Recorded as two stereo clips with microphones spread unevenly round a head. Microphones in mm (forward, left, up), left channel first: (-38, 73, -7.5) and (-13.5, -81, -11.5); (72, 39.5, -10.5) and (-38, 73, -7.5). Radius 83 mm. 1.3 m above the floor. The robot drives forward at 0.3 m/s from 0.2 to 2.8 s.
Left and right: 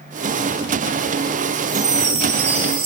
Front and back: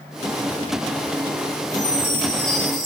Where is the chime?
85° right, 0.9 m; by 2.9 s 105° right, 0.9 m.